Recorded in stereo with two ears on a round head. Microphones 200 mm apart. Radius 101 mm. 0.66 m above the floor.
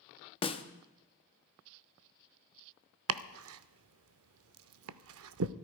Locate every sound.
0.4 s a snare drum: 25° left (ahead or behind), 0.8 m
3.1 s chopping: 70° right (ahead or behind), 0.6 m